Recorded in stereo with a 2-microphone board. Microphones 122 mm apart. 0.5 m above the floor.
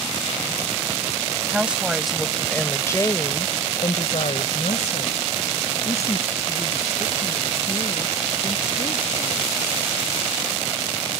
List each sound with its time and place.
1.5 s a woman speaking: 10° right (ahead or behind); by 10.0 s 50° left (ahead or behind)